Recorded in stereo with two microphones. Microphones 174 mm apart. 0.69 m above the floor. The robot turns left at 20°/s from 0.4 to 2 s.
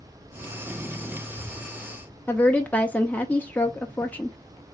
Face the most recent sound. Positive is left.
turn(degrees=10)  # may be behind; listen again after turning